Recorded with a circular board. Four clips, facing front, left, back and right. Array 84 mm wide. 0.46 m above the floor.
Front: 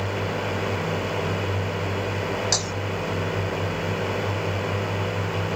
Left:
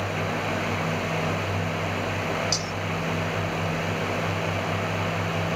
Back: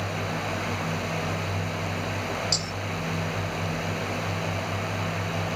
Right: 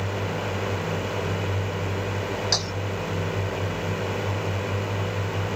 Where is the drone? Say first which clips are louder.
Left 1 dB, front 3 dB; 30° right.